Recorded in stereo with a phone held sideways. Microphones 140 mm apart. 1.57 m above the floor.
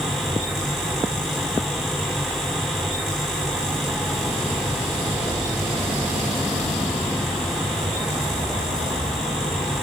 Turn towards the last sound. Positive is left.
turn(degrees=0)  # may be behind; listen again after turning